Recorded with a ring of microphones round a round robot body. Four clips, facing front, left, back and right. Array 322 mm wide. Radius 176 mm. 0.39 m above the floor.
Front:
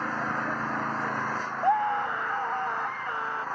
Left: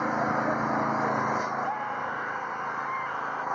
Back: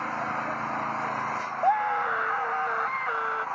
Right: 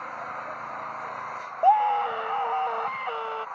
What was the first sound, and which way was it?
An engine running, 75° left.